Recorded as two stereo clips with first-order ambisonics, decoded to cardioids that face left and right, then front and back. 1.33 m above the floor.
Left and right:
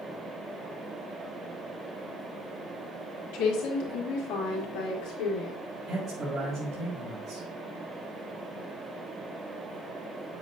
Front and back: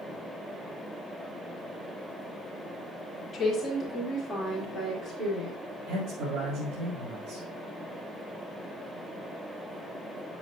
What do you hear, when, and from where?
3.3 s a woman speaking: 80° left, 2.5 m; by 5.6 s 105° left, 3 m
5.9 s a man speaking: 160° right, 3.5 m